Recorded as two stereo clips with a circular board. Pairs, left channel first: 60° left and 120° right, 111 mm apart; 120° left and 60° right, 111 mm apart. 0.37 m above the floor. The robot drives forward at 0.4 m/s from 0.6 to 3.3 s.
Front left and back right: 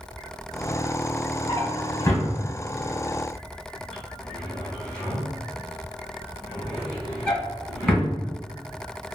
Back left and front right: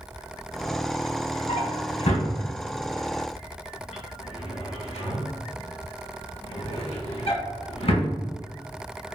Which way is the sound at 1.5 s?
110° left.